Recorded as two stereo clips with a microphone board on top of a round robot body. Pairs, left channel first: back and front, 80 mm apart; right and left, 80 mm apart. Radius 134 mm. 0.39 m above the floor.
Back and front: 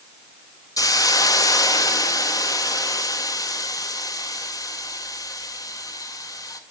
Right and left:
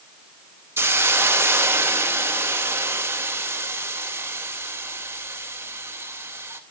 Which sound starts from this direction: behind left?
A hiss, at 0.8 s.